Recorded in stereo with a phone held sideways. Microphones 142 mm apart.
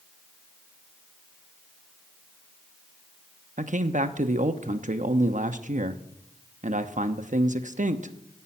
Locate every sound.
3.6 s a man speaking: 60° right (ahead or behind), 0.9 m